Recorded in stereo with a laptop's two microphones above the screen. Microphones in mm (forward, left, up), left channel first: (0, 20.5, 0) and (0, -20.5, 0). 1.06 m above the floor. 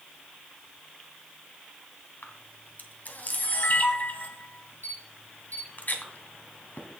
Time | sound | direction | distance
2.2 | a camera shutter | 45° left (ahead or behind) | 2 m